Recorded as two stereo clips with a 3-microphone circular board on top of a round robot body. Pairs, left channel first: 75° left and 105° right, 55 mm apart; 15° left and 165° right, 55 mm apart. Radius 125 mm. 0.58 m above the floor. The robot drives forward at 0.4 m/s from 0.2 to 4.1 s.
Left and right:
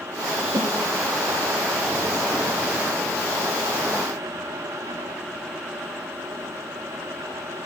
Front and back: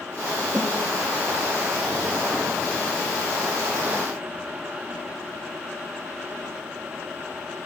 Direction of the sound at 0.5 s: 90° right.